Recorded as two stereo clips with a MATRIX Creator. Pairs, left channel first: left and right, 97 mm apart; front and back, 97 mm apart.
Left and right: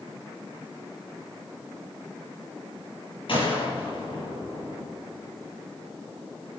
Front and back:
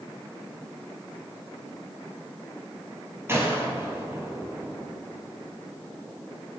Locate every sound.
3.3 s a gunshot: 115° left, 4 m